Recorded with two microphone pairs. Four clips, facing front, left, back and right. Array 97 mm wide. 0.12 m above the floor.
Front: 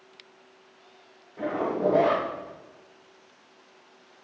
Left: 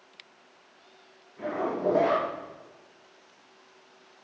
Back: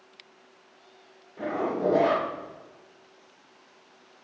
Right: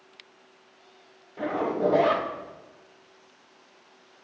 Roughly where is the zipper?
Right.